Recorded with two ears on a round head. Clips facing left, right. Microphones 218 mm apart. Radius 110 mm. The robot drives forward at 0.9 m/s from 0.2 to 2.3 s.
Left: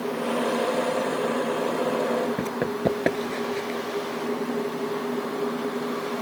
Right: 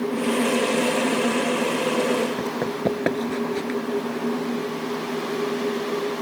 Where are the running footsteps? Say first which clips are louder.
Right 1 dB; 10° left (ahead or behind); by 3.8 s 25° right (ahead or behind).